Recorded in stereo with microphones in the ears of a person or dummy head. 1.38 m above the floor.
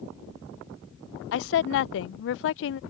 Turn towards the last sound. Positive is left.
turn(degrees=70)  # may be behind; listen again after turning